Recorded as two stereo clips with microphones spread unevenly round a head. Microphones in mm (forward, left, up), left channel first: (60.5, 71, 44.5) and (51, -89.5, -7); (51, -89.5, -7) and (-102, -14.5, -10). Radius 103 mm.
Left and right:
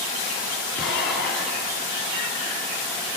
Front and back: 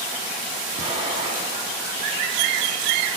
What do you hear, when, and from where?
0.8 s an explosion: 80° left, 9.5 m